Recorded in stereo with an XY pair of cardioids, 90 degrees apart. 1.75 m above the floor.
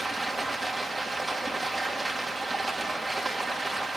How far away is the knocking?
No knocking in this recording.